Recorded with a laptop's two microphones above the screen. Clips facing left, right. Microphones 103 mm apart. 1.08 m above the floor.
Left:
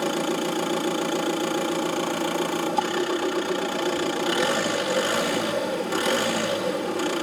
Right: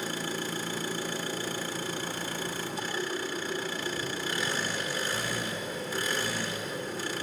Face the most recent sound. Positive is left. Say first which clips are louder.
# left 10 dB
turn(degrees=80)